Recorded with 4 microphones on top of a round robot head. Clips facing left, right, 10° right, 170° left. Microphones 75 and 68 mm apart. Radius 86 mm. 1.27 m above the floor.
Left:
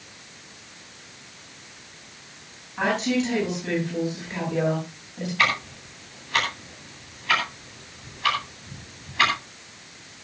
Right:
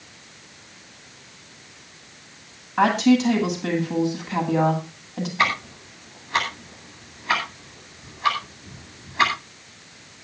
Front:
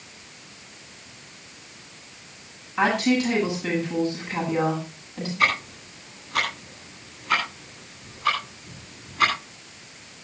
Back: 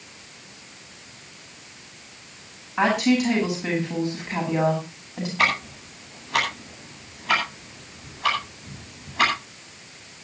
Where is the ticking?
155° right, 9.5 m.